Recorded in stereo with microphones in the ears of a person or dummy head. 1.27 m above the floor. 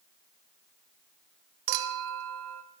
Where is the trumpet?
I don't hear a trumpet.